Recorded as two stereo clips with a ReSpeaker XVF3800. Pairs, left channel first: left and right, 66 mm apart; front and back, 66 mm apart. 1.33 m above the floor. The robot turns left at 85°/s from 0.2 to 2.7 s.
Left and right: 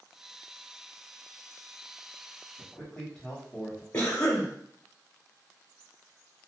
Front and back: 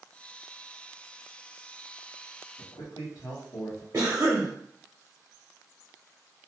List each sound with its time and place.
2.6 s a man speaking: 25° left, 1.1 m; by 3.8 s 15° left, 1.1 m
3.9 s a cough: 135° left, 0.7 m